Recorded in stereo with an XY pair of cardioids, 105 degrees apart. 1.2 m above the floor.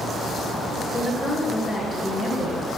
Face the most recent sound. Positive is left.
turn(degrees=10)